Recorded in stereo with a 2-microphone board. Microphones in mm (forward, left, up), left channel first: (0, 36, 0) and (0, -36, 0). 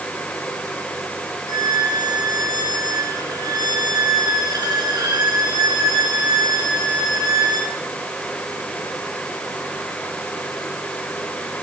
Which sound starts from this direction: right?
A violin, at 1.5 s.